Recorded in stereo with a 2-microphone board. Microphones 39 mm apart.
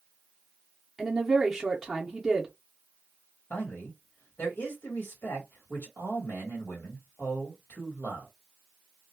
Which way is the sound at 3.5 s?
75° left (ahead or behind).